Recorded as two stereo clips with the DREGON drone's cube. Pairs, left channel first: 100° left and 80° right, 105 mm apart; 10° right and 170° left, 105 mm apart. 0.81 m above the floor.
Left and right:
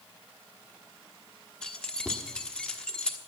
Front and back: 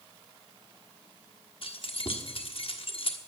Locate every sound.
1.6 s keys jangling: 20° left, 1.3 m